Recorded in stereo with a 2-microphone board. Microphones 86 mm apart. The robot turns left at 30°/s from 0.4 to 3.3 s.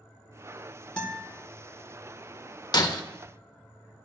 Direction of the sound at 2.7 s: 50° left (ahead or behind).